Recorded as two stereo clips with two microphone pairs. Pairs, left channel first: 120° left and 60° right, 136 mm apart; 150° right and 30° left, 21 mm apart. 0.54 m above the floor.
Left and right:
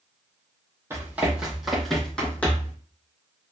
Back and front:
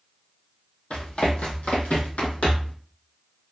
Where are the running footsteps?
130° right, 1.3 m; by 2.8 s 165° right, 1.7 m.